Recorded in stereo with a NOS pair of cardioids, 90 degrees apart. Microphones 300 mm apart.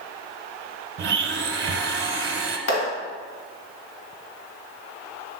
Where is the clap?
45° left, 2.5 m.